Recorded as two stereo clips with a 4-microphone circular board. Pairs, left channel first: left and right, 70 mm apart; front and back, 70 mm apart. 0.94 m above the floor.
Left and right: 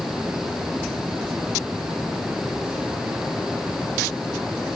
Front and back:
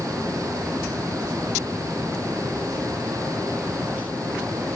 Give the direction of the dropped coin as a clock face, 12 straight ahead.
No dropped coin in this recording.